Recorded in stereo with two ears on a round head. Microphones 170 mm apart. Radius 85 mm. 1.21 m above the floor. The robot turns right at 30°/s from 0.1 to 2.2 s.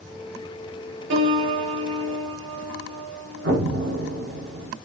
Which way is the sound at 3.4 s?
60° right (ahead or behind).